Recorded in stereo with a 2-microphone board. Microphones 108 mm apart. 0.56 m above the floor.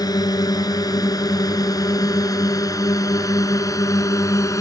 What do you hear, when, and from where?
0.0 s a drone: 35° left (ahead or behind); by 4.6 s 30° left (ahead or behind)